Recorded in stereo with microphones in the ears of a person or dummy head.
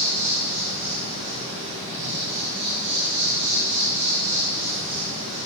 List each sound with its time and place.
0.0 s an insect: 60° right (ahead or behind), 3.5 m